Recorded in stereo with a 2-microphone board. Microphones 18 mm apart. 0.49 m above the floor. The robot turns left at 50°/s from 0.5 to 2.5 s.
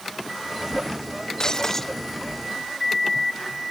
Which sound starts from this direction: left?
Breaking glass, at 1.4 s.